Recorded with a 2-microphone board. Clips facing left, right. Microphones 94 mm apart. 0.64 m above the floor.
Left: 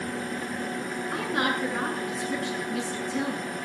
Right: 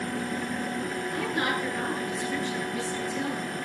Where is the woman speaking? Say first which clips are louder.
Left 2 dB; 80° left, 8 m.